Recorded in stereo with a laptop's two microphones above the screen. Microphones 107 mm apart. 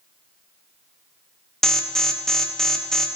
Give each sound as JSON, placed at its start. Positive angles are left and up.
{"t": 1.6, "sound": "an alarm", "side_deg": 5, "distance_m": 0.6}